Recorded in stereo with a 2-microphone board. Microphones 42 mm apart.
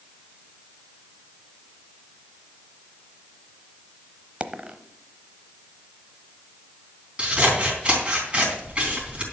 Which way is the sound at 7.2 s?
25° right (ahead or behind).